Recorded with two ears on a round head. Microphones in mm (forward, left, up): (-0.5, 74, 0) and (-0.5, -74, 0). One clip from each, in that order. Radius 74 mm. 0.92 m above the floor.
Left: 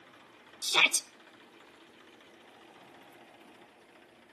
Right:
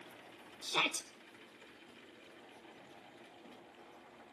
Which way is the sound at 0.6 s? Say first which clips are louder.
Left 9 dB; 50° left (ahead or behind).